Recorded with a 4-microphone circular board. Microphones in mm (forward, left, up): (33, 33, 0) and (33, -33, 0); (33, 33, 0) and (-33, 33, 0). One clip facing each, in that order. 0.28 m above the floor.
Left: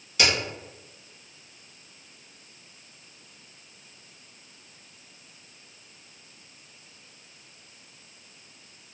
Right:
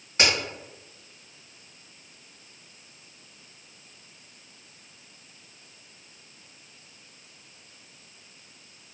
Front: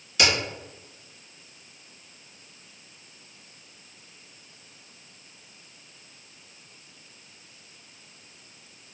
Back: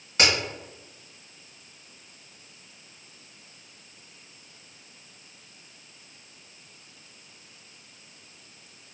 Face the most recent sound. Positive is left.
turn(degrees=-140)